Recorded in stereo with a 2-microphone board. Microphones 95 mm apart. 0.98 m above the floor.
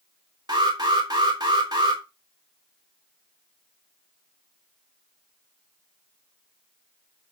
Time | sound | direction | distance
0.5 | an alarm | 45° right (ahead or behind) | 4 m